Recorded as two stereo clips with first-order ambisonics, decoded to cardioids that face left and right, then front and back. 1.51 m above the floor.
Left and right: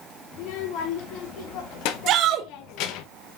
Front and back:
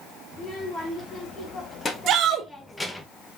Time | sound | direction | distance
0.3 | a child speaking | 70° left | 2.5 m
2.1 | a shout | 135° right | 1.4 m